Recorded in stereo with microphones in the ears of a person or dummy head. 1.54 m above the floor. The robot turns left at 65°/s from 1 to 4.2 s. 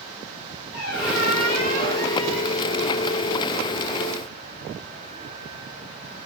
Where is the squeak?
90° left, 2.5 m; by 2.6 s 15° right, 2.5 m.